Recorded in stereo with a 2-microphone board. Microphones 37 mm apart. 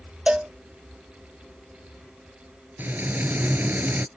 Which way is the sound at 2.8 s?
60° right (ahead or behind).